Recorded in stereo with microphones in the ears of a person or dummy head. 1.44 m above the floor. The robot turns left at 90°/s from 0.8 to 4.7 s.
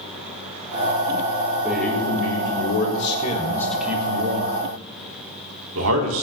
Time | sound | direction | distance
1.6 | a man speaking | 165° right | 3.5 m